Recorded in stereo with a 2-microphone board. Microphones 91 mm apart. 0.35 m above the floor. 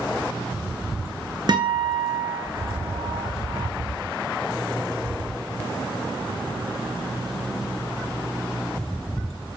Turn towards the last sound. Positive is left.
turn(degrees=-50)  # may be behind; listen again after turning